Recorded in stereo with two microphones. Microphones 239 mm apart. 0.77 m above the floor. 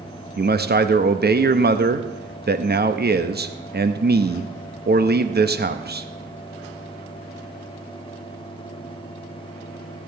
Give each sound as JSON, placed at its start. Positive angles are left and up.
{"t": 0.4, "sound": "a man speaking", "side_deg": -45, "distance_m": 0.7}